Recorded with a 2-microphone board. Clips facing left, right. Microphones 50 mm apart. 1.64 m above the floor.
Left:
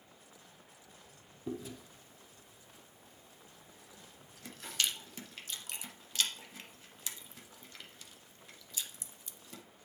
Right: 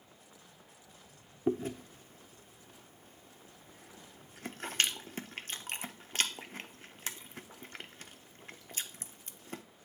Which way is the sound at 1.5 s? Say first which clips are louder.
Right 9 dB; 45° right (ahead or behind).